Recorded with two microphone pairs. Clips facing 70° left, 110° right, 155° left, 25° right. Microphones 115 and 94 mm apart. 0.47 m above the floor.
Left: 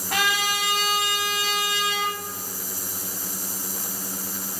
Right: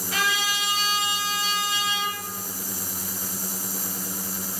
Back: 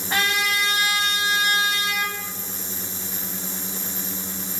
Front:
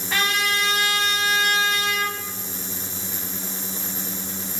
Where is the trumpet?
95° left, 1.6 m.